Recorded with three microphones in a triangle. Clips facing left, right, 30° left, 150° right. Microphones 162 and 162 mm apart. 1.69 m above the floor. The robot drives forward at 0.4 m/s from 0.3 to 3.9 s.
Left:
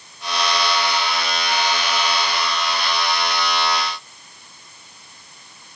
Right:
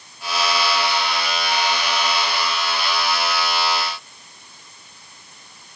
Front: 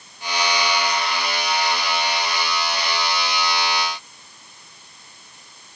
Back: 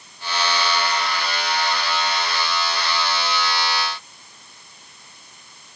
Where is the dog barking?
I don't hear a dog barking.